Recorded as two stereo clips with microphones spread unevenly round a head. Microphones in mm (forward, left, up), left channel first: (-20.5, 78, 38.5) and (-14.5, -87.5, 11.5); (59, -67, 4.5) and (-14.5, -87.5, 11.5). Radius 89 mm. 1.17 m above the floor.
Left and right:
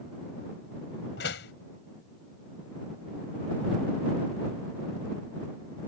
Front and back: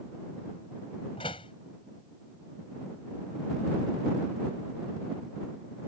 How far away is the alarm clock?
No alarm clock in this recording.